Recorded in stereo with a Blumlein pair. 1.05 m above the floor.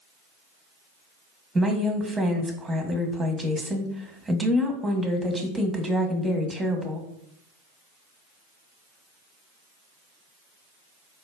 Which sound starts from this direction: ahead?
A woman speaking, at 1.6 s.